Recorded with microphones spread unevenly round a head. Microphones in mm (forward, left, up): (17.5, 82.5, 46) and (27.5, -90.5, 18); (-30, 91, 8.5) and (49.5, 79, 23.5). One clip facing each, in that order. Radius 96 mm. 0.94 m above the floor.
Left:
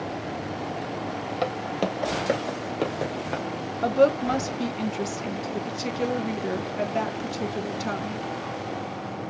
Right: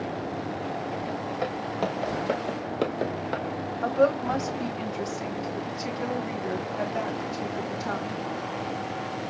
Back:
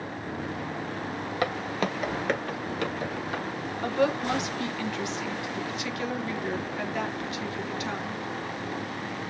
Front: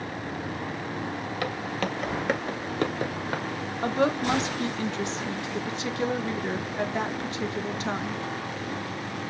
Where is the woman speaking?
50° left, 1.1 m.